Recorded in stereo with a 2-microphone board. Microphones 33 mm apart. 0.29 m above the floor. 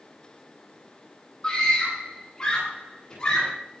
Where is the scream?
20° left (ahead or behind), 9.5 m.